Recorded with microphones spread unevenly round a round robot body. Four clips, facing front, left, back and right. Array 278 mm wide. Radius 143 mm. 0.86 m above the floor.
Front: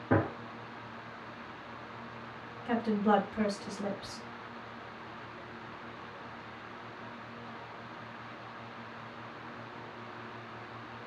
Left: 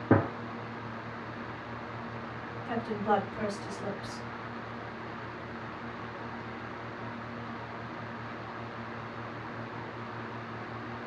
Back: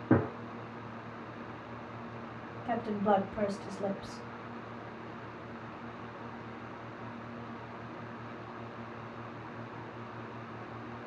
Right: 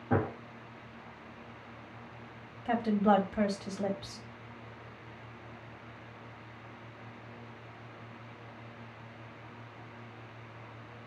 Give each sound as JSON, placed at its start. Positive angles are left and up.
{"t": 0.1, "sound": "a gunshot", "azimuth_deg": 115, "distance_m": 0.6}
{"t": 2.6, "sound": "a woman speaking", "azimuth_deg": -100, "distance_m": 1.3}